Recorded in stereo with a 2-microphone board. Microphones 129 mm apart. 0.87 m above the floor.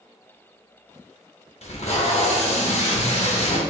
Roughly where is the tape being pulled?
Left.